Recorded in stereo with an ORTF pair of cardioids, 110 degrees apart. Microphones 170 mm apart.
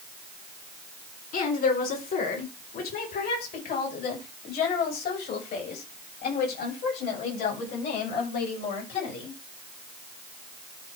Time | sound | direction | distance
1.3 | a woman speaking | 55° left | 4 m